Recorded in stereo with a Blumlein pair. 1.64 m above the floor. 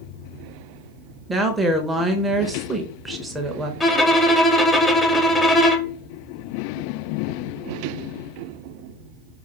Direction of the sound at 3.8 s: 5° left.